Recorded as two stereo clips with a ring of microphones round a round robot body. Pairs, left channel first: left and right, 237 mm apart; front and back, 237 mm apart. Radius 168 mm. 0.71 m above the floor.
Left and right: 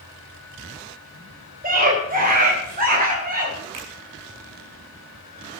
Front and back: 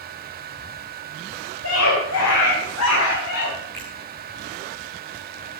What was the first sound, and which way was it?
A scream, 40° right.